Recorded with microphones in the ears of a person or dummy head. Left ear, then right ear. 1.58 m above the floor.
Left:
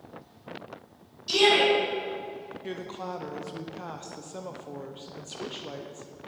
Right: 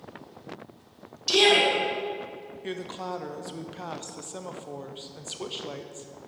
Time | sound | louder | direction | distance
1.3 | a shout | right 1 dB | 35° right (ahead or behind) | 2.5 m
2.6 | a woman speaking | right 3 dB | 5° right (ahead or behind) | 0.5 m